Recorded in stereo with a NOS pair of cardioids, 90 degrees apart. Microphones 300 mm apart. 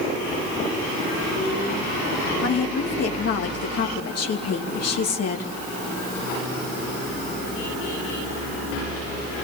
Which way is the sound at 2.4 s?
55° left.